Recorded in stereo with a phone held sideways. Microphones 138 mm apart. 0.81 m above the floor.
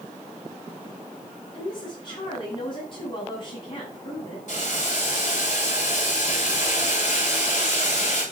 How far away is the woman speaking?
About 7.5 m.